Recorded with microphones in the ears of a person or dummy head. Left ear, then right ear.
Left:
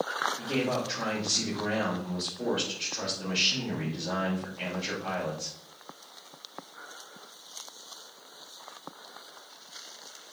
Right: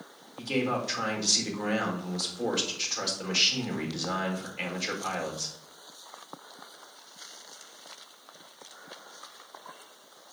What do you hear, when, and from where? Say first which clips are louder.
0.4 s a man speaking: even; 55° right (ahead or behind), 4.5 m